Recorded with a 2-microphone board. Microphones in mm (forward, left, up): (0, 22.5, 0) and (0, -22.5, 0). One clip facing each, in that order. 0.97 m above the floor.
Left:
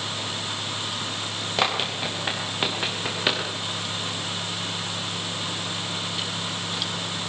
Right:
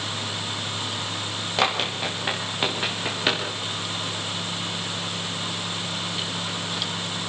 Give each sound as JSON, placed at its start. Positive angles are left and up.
{"t": 1.6, "sound": "running footsteps", "side_deg": 0, "distance_m": 5.5}